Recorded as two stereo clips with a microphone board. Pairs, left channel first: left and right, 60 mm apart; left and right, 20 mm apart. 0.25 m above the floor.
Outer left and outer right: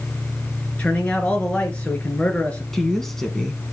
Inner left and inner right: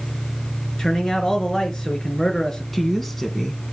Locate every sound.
0.8 s a man speaking: 20° left (ahead or behind), 3.5 m
2.7 s a woman speaking: 5° left (ahead or behind), 1.8 m